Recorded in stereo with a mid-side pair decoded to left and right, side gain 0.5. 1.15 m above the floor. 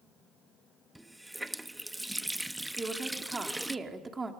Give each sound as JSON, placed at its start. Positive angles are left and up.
{"t": 0.9, "sound": "a running tap", "azimuth_deg": -10, "distance_m": 0.9}
{"t": 2.8, "sound": "a woman speaking", "azimuth_deg": -25, "distance_m": 3.0}